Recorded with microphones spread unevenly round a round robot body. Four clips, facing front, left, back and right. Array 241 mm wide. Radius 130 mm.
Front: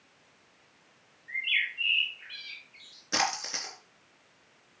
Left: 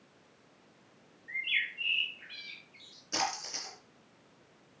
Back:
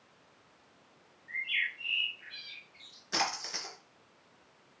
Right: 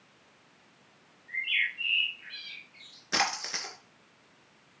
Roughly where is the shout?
No shout in this recording.